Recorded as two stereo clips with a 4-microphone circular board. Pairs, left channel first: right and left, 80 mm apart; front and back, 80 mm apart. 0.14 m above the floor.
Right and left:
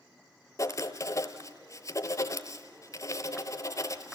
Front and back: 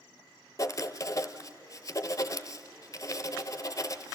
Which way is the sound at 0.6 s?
45° right.